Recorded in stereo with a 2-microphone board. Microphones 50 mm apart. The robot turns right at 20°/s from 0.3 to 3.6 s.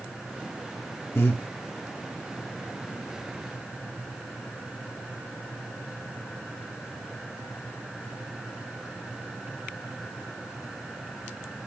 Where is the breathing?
55° left (ahead or behind), 1.3 m.